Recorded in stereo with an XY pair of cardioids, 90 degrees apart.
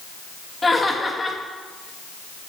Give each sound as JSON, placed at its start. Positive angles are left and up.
{"t": 0.6, "sound": "laughter", "azimuth_deg": 20, "distance_m": 1.6}